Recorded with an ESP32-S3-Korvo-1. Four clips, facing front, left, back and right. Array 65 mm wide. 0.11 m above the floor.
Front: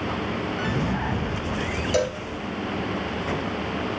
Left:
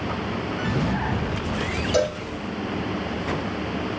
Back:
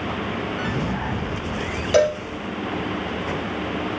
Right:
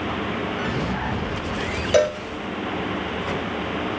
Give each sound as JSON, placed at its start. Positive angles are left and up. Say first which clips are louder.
{"t": 1.9, "sound": "a cowbell", "louder": "right 5 dB, back 8 dB", "azimuth_deg": -120, "distance_m": 1.0}